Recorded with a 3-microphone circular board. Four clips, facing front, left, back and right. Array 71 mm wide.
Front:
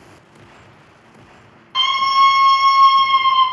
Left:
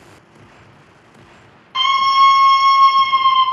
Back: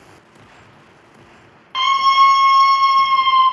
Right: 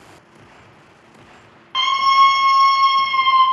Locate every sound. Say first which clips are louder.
1.7 s a scream: left 1 dB, back 2 dB; 140° right, 1.0 m; by 3.4 s 35° left, 1.0 m